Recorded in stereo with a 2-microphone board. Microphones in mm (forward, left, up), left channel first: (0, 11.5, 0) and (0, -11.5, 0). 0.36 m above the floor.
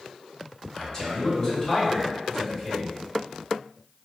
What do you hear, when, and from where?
0.7 s a man speaking: 30° left (ahead or behind), 1.7 m